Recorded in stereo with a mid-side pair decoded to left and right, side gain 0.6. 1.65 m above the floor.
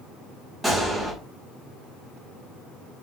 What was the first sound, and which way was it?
A gunshot, 5° right.